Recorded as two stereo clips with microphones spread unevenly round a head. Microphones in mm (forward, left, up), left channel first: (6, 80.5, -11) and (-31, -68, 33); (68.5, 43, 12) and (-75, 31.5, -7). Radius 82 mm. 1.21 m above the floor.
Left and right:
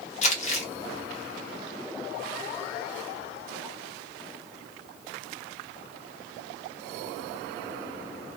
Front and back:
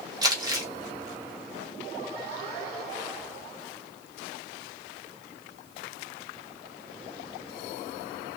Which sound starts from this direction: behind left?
Crumpling, at 0.2 s.